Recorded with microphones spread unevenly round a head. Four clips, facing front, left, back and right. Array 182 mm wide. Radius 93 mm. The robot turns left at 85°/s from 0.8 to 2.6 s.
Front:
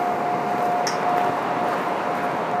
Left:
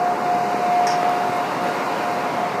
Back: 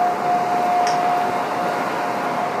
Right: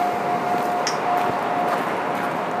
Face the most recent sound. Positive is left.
turn(degrees=110)